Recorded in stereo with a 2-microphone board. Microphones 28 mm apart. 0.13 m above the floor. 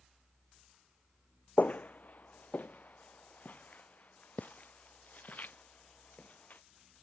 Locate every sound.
1.6 s footsteps: 65° left (ahead or behind); by 6.6 s 70° left (ahead or behind)